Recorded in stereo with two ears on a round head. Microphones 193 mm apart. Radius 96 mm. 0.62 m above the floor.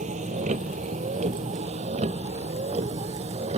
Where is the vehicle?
35° right (ahead or behind); by 3.6 s 30° right (ahead or behind).